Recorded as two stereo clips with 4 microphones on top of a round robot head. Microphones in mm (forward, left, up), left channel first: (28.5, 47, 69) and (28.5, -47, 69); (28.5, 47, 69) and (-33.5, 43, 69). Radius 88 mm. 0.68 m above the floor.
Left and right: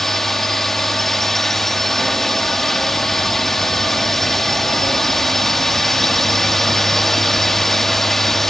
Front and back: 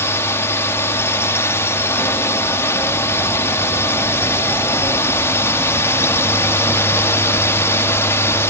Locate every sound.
0.0 s a drone: 5° left